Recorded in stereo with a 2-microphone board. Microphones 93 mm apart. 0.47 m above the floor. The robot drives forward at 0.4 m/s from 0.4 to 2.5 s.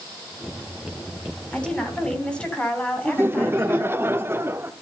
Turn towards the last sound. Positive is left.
turn(degrees=-25)  # may be behind; listen again after turning